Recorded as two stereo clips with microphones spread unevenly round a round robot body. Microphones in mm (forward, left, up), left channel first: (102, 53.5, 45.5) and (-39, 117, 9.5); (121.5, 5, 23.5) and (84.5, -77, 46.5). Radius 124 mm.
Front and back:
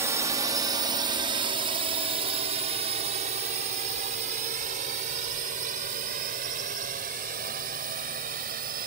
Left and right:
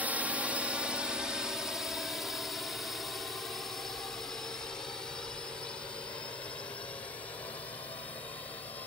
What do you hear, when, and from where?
0.0 s a drone: 160° left; by 8.9 s 140° left